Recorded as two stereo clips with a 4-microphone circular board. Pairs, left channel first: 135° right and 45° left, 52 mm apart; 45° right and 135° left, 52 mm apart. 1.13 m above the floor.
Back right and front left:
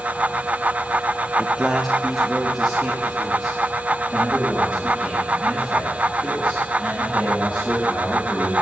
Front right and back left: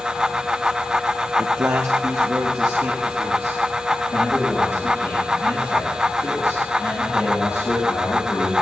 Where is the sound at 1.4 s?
130° left, 0.9 m.